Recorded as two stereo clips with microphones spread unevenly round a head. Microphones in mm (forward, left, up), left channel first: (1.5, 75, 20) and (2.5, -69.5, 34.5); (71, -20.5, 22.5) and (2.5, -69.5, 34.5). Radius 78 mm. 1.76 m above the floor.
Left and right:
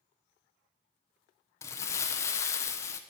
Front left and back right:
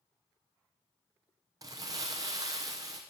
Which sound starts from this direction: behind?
Crumpling, at 1.6 s.